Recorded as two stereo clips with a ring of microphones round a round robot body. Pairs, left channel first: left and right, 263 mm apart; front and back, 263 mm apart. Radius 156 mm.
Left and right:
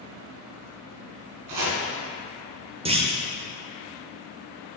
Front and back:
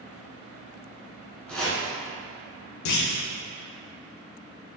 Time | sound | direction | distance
1.5 | chopping | 85° right | 1.4 m
2.9 | a clunk | 20° right | 0.8 m